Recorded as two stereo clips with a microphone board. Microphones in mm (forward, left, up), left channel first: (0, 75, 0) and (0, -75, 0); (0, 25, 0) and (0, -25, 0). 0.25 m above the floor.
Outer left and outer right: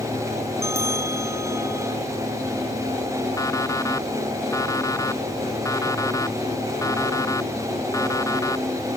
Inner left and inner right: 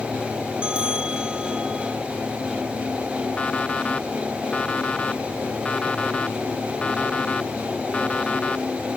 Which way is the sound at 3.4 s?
20° left (ahead or behind).